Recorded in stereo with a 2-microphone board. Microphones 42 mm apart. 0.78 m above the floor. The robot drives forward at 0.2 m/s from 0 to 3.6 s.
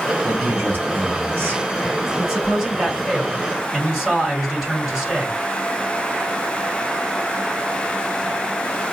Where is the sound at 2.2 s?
15° right (ahead or behind), 2.5 m; by 5.4 s 10° right (ahead or behind), 3 m.